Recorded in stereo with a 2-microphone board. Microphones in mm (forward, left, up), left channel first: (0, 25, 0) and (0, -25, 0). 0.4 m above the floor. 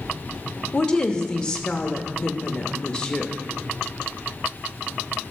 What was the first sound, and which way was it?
A woman speaking, 15° left (ahead or behind).